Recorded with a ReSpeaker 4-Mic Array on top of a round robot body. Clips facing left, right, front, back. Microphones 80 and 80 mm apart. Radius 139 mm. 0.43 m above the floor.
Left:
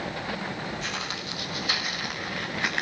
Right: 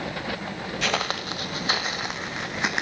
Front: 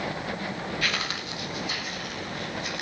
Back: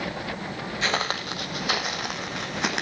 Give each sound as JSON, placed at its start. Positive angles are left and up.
{"t": 0.8, "sound": "footsteps", "azimuth_deg": -115, "distance_m": 0.6}